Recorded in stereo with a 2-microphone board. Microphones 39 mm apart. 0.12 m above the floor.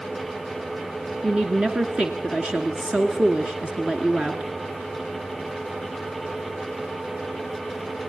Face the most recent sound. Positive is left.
turn(degrees=-25)  # may be behind; listen again after turning